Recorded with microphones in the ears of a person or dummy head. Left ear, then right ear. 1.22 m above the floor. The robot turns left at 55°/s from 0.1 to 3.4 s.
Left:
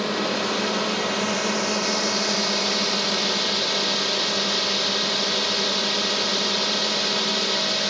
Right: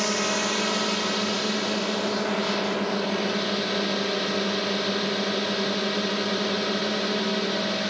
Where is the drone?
135° right; by 7.9 s 40° left.